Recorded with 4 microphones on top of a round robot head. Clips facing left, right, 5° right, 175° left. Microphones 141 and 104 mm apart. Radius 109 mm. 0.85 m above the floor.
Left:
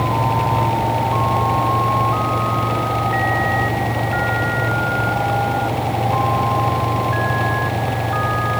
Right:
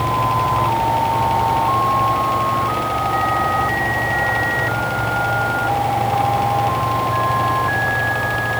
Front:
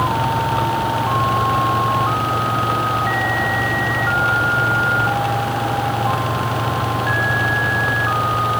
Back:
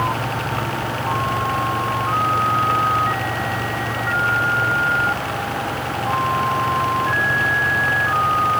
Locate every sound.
Only background noise.